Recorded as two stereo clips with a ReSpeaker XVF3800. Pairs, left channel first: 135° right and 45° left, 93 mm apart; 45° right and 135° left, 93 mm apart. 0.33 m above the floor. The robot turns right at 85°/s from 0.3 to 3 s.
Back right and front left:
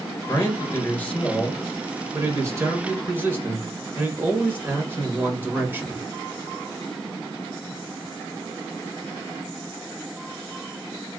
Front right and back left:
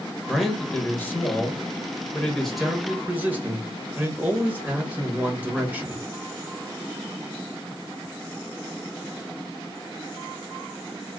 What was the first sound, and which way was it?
A man speaking, 145° right.